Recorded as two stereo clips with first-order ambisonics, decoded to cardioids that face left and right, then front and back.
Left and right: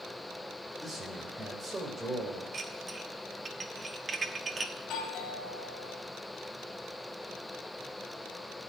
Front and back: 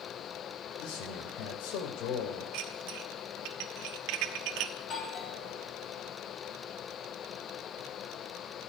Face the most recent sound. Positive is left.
turn(degrees=50)